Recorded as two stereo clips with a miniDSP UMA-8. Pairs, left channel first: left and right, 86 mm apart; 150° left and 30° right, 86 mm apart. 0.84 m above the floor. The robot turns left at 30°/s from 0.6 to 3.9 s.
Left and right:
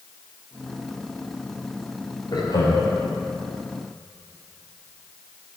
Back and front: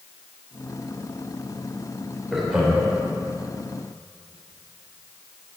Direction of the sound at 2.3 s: 60° left.